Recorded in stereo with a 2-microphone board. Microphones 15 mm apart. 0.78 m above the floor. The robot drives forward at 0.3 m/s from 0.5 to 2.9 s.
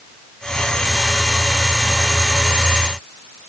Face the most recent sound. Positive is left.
No sound to turn to.